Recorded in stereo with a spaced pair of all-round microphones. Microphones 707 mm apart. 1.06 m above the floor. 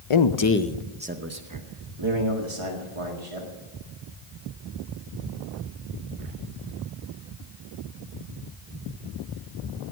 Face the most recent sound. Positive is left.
turn(degrees=-50)  # may be behind; listen again after turning